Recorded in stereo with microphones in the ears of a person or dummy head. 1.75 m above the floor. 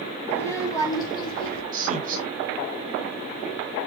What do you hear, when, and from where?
0.3 s a child speaking: 15° left (ahead or behind), 2 m; by 1.6 s 35° left (ahead or behind), 1.7 m
1.7 s a man speaking: 45° right (ahead or behind), 2 m